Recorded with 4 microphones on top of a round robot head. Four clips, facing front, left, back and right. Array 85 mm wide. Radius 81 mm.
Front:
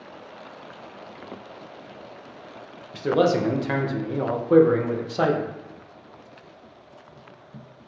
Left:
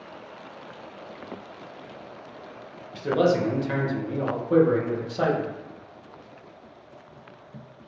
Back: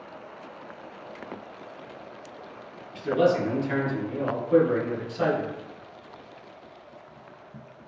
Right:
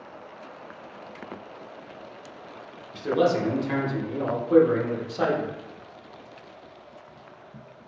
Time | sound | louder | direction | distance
2.9 | a man speaking | left 1 dB, front 2 dB | 5° left | 0.6 m